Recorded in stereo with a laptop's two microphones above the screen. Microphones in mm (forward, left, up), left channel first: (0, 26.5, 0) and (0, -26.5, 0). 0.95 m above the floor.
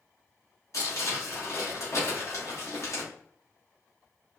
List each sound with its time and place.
0.7 s crumpling: 60° left (ahead or behind), 2 m